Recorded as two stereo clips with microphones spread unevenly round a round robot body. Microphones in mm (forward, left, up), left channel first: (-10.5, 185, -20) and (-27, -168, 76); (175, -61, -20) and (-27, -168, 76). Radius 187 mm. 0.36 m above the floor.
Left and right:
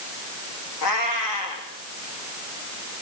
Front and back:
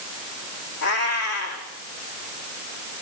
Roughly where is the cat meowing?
Ahead left.